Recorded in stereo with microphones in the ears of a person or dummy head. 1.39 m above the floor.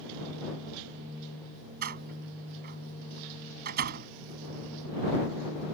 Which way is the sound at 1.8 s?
50° right (ahead or behind).